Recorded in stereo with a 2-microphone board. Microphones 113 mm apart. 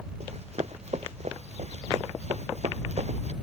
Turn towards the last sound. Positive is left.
turn(degrees=-80)